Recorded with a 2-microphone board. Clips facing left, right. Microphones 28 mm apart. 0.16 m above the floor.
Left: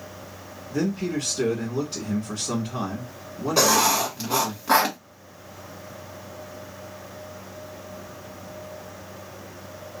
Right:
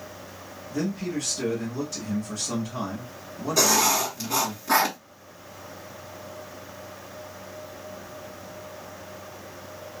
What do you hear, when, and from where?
0.7 s a man speaking: 35° left (ahead or behind), 1.2 m
3.6 s writing: 30° left (ahead or behind), 1.6 m